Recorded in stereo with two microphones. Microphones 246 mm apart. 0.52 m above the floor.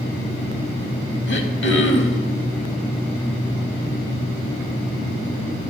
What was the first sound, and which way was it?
Throat clearing, 55° left (ahead or behind).